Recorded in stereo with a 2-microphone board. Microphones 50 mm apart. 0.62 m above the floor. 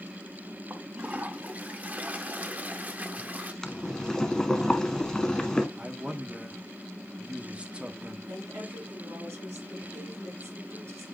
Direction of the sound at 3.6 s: 10° left (ahead or behind).